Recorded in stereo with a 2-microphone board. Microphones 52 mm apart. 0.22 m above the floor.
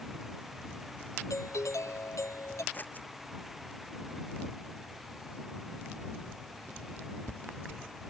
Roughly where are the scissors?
Left.